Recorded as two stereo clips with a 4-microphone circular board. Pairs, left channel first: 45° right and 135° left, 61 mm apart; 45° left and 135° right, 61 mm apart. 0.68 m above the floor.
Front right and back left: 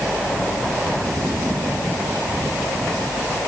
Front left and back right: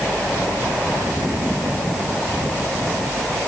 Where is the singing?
I don't hear singing.